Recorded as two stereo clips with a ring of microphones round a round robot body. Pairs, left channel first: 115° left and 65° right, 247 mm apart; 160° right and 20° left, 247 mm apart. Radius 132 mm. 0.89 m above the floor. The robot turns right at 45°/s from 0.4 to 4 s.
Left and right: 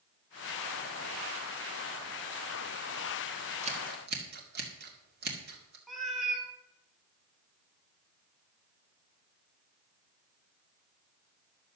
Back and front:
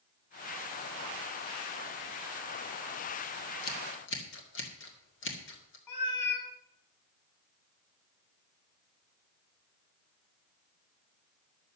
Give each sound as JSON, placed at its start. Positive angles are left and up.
{"t": 3.6, "sound": "scissors", "azimuth_deg": -135, "distance_m": 2.0}
{"t": 5.9, "sound": "a cat meowing", "azimuth_deg": -160, "distance_m": 1.4}